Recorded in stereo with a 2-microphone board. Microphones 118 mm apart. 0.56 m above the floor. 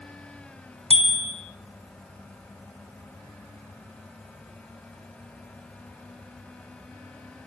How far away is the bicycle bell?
About 3.5 m.